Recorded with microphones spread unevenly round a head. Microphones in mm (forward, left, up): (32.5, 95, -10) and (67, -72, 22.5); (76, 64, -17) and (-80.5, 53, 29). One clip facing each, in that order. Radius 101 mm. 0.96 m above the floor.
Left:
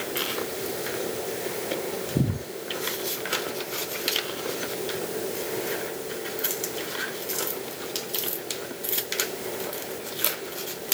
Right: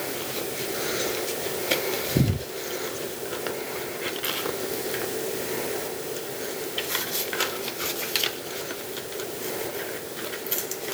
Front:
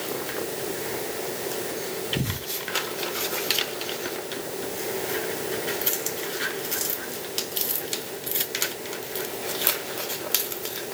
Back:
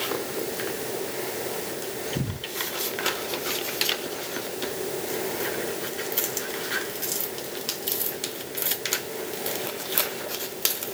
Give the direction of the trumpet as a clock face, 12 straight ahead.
I don't hear a trumpet.